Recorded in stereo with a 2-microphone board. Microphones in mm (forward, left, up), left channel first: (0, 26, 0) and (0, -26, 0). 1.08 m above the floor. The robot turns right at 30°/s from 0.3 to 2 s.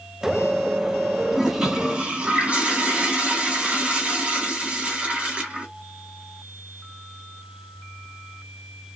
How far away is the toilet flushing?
About 0.9 m.